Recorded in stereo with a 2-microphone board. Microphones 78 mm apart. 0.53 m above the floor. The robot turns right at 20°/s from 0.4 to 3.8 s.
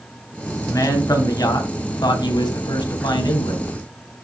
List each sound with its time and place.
0.7 s a man speaking: 40° left, 3 m; by 3.6 s 100° left, 3 m